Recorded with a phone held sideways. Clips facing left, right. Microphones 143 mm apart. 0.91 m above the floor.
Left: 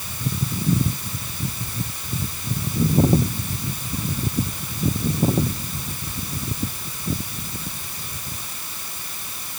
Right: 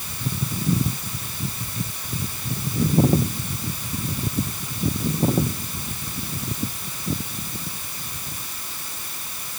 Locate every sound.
Only background noise.